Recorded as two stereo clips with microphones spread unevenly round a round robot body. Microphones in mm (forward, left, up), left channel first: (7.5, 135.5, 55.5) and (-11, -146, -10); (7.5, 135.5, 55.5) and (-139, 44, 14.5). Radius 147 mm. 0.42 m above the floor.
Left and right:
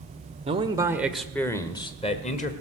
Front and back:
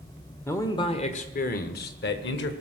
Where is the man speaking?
55° right, 1.1 m; by 2.5 s 20° left, 1.7 m.